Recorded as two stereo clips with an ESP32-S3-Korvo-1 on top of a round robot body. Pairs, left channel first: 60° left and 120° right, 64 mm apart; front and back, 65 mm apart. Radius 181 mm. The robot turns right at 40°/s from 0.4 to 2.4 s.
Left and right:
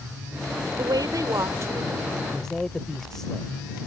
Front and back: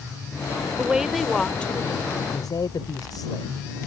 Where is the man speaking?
30° right; by 3.5 s 25° right.